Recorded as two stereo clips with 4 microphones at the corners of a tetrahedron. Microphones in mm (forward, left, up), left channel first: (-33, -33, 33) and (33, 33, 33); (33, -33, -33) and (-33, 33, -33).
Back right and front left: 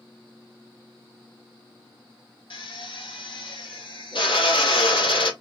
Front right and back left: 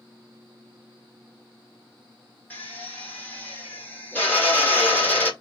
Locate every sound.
2.5 s a drill: 115° right, 1.4 m